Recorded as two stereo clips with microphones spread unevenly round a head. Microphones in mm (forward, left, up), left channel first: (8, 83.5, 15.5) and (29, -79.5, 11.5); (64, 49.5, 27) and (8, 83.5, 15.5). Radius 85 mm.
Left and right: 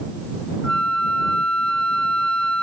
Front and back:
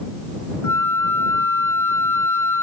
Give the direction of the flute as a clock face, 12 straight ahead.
12 o'clock.